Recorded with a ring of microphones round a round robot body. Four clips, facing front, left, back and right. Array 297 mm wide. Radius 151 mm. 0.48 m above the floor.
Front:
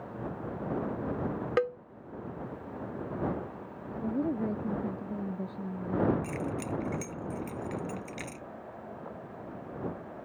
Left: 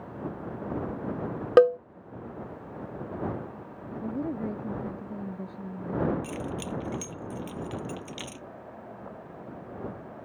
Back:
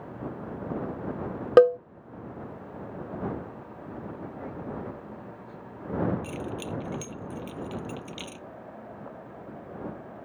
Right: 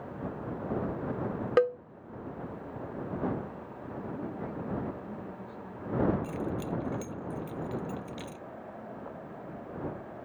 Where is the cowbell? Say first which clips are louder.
Left 8 dB, back 14 dB; 150° left.